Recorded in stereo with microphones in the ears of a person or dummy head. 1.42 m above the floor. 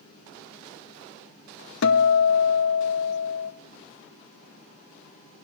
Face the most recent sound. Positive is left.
turn(degrees=75)  # may be behind; listen again after turning